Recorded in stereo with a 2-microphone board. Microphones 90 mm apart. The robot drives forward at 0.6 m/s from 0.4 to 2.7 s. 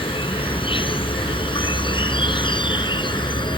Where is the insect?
70° left (ahead or behind); by 3.6 s 60° left (ahead or behind).